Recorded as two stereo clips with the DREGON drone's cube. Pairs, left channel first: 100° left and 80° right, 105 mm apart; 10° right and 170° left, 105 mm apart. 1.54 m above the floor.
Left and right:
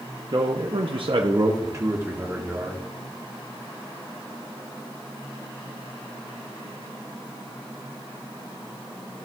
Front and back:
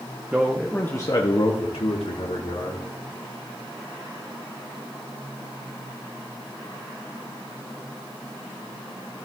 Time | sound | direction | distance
0.3 | a man speaking | 120° right | 0.9 m